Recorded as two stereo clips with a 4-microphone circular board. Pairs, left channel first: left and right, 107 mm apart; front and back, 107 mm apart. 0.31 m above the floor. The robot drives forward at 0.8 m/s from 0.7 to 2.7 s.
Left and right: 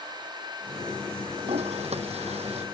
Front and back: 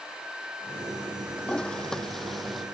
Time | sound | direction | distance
1.4 | a toilet flushing | 80° right | ?